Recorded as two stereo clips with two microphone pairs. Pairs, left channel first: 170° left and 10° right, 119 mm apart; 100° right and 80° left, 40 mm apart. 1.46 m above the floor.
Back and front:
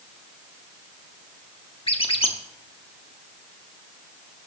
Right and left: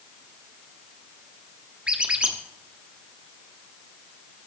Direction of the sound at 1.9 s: 135° left.